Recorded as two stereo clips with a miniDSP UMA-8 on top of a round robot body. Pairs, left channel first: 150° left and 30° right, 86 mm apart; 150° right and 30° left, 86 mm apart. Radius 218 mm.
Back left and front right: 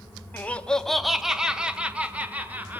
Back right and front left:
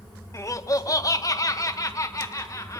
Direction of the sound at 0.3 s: 155° right.